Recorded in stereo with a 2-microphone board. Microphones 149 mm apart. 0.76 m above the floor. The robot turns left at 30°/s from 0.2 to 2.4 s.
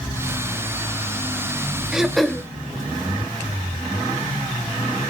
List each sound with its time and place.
1.9 s throat clearing: 5° right (ahead or behind), 0.6 m; by 2.5 s 5° left (ahead or behind), 0.6 m